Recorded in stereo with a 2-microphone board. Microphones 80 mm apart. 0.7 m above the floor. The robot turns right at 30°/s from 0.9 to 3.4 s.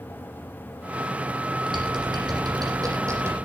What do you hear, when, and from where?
1.7 s typing on a keyboard: 85° right, 9.5 m; by 3.4 s 35° right (ahead or behind), 9.5 m